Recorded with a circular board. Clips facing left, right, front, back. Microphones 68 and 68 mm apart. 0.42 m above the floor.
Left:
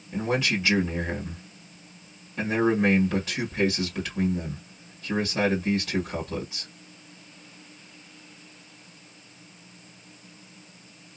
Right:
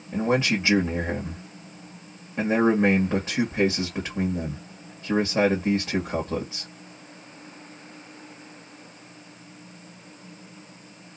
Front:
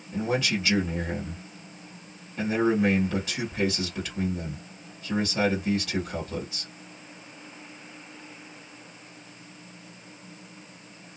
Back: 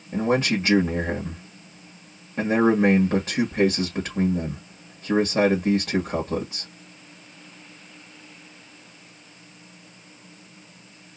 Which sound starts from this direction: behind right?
A man speaking, at 0.1 s.